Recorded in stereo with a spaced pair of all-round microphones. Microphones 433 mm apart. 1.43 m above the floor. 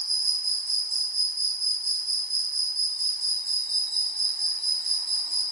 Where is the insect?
50° right (ahead or behind), 1.0 m.